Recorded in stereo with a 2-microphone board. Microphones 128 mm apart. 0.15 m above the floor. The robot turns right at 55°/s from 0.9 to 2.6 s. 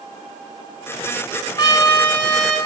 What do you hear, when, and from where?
1.6 s a trumpet: 130° left, 1.6 m; by 2.6 s straight behind, 1.6 m